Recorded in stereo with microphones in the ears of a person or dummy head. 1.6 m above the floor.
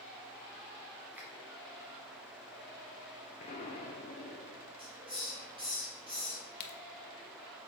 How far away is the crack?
About 0.8 m.